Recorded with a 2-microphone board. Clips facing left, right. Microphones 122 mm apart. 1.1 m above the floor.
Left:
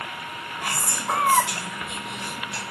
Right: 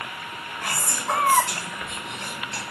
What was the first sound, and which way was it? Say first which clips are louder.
Whispering: even; 10° left (ahead or behind).